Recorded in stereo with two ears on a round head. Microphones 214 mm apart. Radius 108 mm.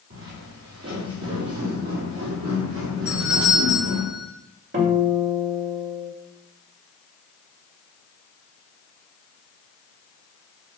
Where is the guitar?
50° right (ahead or behind), 2 m.